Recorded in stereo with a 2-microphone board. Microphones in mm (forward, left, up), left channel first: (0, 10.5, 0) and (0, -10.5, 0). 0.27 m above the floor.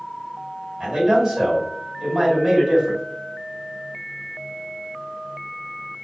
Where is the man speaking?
35° right (ahead or behind), 1.9 m.